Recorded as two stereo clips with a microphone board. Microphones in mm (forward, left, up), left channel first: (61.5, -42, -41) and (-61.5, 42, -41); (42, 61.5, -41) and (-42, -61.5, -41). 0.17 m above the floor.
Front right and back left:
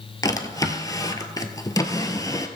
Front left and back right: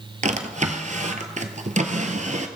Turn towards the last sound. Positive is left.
turn(degrees=-100)